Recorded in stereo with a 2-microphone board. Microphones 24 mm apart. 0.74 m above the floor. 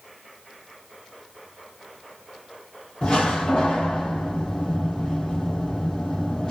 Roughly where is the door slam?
Left.